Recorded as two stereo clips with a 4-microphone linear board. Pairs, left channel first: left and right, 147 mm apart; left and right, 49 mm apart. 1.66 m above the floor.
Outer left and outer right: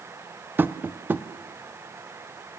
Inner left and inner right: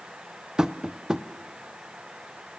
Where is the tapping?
15° right (ahead or behind), 0.6 m.